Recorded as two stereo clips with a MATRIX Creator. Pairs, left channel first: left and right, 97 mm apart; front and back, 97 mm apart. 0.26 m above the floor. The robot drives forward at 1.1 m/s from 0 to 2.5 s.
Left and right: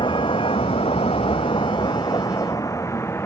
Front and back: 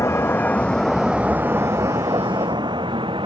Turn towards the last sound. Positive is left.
turn(degrees=155)